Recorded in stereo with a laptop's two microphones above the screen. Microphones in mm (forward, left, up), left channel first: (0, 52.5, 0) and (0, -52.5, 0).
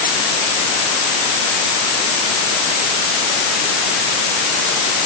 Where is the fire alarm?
I don't hear a fire alarm.